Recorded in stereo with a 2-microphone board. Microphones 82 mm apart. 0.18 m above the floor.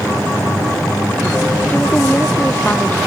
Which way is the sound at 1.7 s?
20° left (ahead or behind).